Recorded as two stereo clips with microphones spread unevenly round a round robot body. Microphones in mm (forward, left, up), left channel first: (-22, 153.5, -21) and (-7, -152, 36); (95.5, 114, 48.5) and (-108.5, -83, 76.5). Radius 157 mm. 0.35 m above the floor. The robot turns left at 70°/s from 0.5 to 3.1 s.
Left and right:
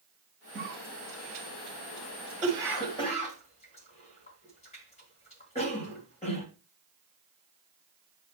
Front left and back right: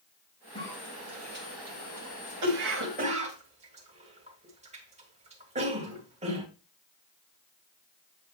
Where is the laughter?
No laughter in this recording.